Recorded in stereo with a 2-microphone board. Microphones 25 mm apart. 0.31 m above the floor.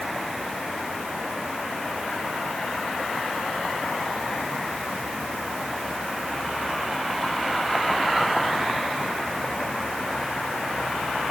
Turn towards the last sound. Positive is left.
No sound to turn to.